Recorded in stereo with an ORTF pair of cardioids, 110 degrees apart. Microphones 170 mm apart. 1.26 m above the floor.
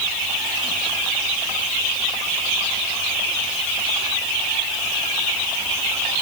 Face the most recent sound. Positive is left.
No sound to turn to.